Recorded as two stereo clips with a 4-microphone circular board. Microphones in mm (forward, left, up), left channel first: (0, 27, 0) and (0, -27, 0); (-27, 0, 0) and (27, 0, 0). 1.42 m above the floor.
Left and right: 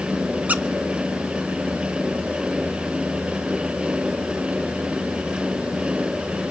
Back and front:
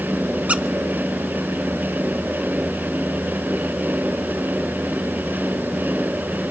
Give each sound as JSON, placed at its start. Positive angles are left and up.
{"t": 0.5, "sound": "a squeak", "azimuth_deg": -50, "distance_m": 0.6}